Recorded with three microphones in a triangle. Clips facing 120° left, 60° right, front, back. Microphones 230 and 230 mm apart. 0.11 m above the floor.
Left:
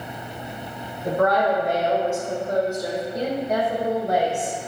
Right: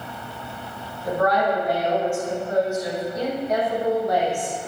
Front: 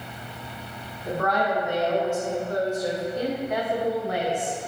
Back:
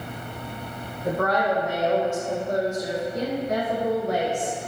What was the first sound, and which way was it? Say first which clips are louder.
A woman speaking: left 1 dB, back 2 dB; 155° left.